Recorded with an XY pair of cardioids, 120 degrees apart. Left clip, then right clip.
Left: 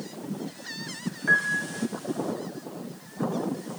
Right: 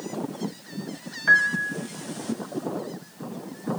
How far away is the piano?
About 3 m.